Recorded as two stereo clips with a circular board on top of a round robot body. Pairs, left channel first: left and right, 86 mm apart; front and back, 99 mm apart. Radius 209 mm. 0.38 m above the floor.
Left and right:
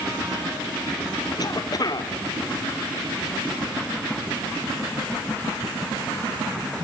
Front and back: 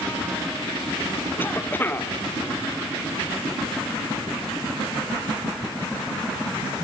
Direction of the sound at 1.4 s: 65° left.